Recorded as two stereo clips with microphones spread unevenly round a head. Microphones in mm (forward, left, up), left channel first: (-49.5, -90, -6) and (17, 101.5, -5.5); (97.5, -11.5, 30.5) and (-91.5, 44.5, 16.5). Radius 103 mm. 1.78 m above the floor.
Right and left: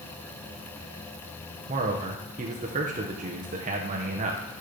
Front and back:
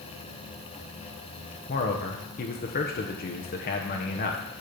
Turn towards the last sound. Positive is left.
turn(degrees=20)